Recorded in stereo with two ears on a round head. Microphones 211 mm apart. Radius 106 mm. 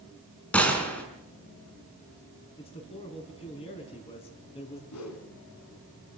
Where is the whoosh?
70° left (ahead or behind), 4 m.